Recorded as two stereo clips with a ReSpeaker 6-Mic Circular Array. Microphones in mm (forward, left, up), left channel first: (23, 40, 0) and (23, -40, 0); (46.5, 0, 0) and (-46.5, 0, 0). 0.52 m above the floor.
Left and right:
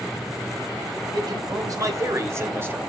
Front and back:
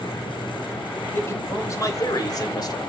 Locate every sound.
1.1 s a man speaking: 60° right, 3.5 m; by 2.8 s 30° right, 2.5 m